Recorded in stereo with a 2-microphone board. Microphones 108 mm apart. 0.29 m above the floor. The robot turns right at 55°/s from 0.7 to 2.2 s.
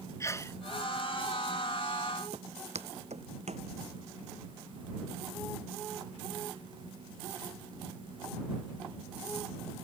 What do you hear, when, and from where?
0.2 s a sneeze: 25° left (ahead or behind)
2.3 s footsteps: 70° right (ahead or behind); by 3.7 s 80° right